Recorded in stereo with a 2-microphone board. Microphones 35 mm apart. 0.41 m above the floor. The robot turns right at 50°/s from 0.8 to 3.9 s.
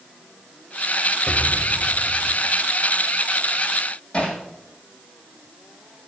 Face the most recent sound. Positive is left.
turn(degrees=35)  # may be behind; listen again after turning